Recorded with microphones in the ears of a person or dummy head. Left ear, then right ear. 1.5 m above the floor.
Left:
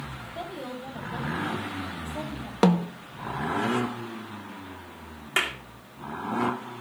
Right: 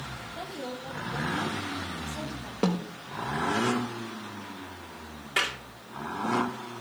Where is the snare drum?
60° left (ahead or behind), 1.0 m.